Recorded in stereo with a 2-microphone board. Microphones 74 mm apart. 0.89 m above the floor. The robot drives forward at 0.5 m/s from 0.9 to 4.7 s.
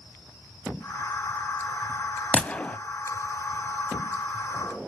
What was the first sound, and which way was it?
A gunshot, 15° left (ahead or behind).